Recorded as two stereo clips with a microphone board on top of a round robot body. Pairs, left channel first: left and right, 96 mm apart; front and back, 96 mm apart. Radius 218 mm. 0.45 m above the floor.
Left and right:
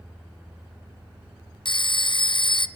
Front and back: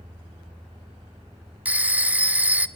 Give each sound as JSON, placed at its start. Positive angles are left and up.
{"t": 1.6, "sound": "a phone ringing", "azimuth_deg": 105, "distance_m": 1.2}